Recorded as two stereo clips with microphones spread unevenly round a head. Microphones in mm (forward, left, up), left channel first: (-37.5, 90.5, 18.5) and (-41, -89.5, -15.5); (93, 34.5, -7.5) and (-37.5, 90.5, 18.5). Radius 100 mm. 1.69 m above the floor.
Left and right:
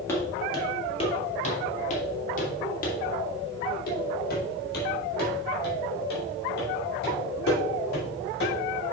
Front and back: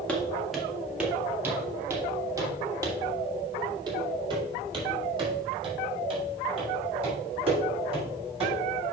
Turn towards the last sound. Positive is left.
turn(degrees=110)